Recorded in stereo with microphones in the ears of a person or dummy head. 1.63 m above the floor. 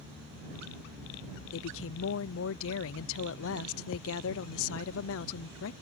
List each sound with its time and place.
1.5 s a woman speaking: 80° left